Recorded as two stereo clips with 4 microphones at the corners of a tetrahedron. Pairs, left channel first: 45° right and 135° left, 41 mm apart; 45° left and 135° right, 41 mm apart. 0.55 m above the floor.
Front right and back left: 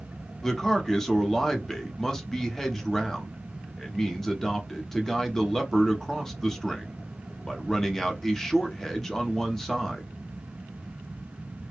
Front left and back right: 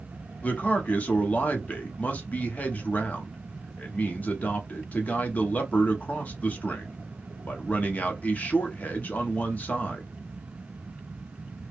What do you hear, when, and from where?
0.4 s a man speaking: 30° left, 1.0 m